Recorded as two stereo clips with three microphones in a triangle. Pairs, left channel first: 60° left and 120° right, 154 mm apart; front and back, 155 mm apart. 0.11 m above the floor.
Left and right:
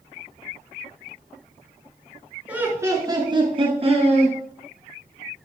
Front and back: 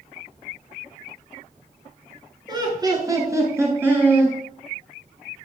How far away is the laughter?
About 1.4 m.